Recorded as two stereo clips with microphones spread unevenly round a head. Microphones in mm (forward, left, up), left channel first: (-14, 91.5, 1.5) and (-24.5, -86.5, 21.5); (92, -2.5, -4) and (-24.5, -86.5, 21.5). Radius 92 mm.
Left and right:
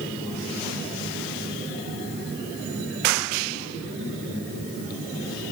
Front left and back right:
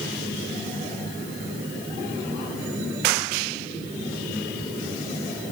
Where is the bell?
I don't hear a bell.